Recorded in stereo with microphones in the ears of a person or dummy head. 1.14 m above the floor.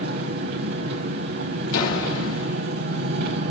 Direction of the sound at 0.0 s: 50° right (ahead or behind).